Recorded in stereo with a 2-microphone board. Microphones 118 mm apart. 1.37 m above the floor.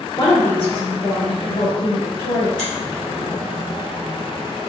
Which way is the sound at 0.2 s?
35° left (ahead or behind).